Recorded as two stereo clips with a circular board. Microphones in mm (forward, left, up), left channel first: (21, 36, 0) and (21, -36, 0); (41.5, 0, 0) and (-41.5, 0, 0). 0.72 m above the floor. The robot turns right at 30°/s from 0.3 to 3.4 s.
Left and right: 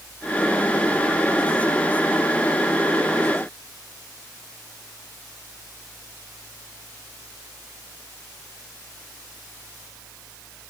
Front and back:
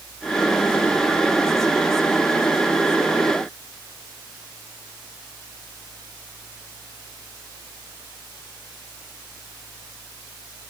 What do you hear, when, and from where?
Only background noise.